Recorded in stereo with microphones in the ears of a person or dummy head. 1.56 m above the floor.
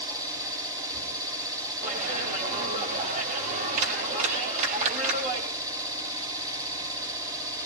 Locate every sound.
0.0 s an engine running: 20° right (ahead or behind), 2.5 m
1.8 s a clap: 40° right (ahead or behind), 7 m